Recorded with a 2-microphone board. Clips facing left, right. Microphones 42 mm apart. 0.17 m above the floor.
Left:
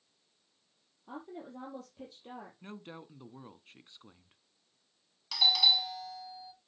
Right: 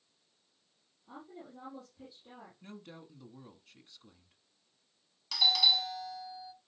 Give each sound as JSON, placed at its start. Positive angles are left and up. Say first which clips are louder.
{"t": 1.1, "sound": "a woman speaking", "louder": "left 5 dB", "side_deg": 65, "distance_m": 5.0}
{"t": 2.6, "sound": "a woman speaking", "louder": "left 3 dB", "side_deg": 30, "distance_m": 1.3}
{"t": 5.3, "sound": "a doorbell", "louder": "left 1 dB", "side_deg": 5, "distance_m": 1.5}